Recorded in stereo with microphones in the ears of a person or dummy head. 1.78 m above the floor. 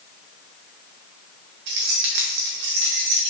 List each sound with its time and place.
1.7 s keys jangling: 60° right (ahead or behind), 1.3 m